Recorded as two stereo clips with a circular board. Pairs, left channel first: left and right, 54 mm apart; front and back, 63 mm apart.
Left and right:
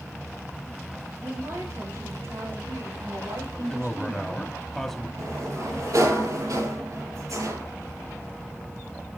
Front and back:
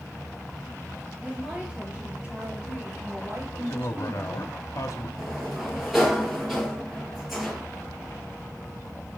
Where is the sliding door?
95° right, 5 m.